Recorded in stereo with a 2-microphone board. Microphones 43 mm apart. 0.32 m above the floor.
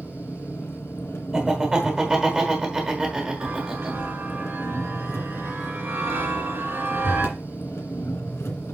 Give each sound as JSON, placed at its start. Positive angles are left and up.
{"t": 0.0, "sound": "an engine running", "side_deg": 75, "distance_m": 1.7}
{"t": 1.3, "sound": "laughter", "side_deg": -20, "distance_m": 1.4}
{"t": 3.4, "sound": "a chime", "side_deg": -65, "distance_m": 3.0}